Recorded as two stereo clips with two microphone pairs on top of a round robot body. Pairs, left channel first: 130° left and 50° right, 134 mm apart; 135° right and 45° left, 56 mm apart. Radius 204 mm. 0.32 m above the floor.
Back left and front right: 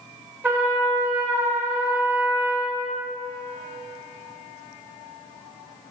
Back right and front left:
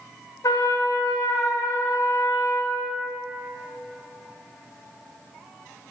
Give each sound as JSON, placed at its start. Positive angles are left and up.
{"t": 0.4, "sound": "a trumpet", "azimuth_deg": -125, "distance_m": 0.9}